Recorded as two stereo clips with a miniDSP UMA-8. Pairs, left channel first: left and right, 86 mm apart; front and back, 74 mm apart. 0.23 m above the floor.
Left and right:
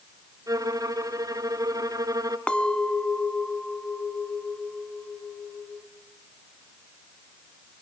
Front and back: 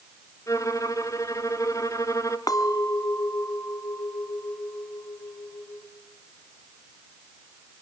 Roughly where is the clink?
Ahead.